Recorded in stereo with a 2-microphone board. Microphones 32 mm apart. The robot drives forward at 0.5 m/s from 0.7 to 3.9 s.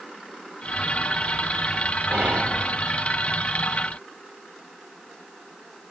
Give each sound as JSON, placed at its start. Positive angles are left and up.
{"t": 2.1, "sound": "whispering", "side_deg": -80, "distance_m": 4.0}